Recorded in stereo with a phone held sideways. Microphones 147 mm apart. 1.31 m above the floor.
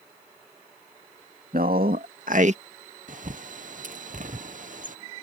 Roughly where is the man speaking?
Right.